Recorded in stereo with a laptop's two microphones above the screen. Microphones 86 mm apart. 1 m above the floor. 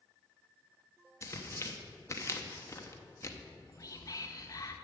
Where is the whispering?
45° left (ahead or behind), 1.0 m.